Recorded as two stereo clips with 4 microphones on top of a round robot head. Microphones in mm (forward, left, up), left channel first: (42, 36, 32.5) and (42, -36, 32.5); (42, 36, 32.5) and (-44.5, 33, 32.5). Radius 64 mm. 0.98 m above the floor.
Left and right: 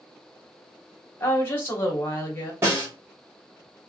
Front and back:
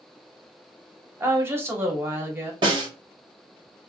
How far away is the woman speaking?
About 0.9 m.